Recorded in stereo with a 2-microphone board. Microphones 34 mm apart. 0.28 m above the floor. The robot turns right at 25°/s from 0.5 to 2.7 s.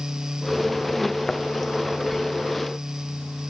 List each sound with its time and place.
1.3 s a thud: 25° left (ahead or behind), 1.0 m; by 1.4 s 30° left (ahead or behind), 1.0 m